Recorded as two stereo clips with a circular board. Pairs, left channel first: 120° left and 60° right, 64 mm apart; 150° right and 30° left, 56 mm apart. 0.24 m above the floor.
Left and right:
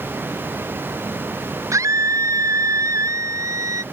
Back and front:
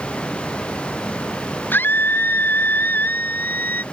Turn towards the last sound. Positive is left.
turn(degrees=-90)